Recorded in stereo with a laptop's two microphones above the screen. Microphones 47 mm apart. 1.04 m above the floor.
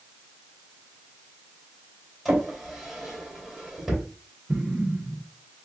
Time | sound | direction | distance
2.2 | a drawer | 5° right (ahead or behind) | 2.5 m
4.5 | an explosion | 20° right (ahead or behind) | 0.7 m